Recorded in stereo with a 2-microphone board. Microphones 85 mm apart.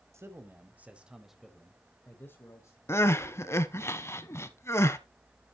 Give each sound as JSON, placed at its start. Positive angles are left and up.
{"t": 0.1, "sound": "a man speaking", "side_deg": -30, "distance_m": 1.5}
{"t": 2.9, "sound": "crying", "side_deg": 30, "distance_m": 0.7}